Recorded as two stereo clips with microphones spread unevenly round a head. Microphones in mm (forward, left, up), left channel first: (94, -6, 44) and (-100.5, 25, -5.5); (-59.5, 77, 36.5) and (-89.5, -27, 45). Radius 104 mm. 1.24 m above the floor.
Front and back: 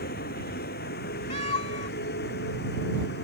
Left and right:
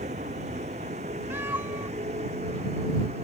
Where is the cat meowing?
35° right.